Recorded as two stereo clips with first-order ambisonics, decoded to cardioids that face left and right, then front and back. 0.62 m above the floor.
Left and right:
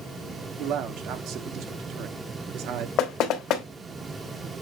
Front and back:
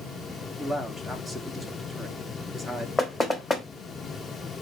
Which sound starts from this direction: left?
Knocking, at 3.0 s.